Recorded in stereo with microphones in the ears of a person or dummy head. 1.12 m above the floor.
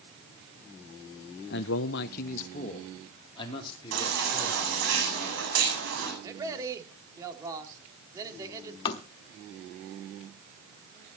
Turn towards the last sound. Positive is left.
turn(degrees=30)  # may be behind; listen again after turning